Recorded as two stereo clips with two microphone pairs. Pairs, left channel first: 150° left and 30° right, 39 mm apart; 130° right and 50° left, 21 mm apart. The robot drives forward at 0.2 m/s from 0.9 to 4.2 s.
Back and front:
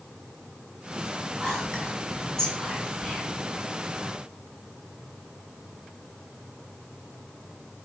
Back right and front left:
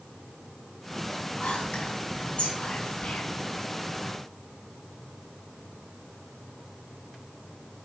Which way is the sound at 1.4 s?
125° right.